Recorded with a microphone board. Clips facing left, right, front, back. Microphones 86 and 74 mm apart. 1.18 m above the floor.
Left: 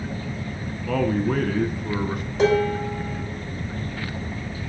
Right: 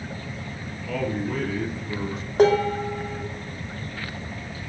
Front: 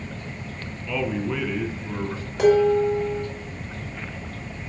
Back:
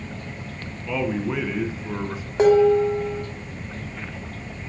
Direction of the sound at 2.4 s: 125° right.